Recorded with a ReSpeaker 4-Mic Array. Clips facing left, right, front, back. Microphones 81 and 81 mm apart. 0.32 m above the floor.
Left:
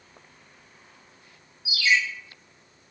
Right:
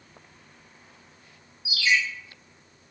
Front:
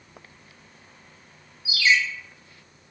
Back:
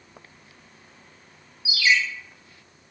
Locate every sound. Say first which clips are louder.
1.6 s a ringtone: left 1 dB, even; 95° right, 1.1 m